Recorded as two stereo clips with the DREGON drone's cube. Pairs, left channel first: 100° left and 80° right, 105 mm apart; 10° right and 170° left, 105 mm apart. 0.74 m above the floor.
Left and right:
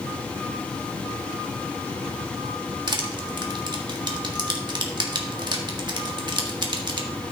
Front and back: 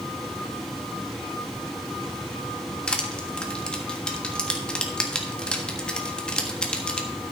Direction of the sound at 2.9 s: 90° right.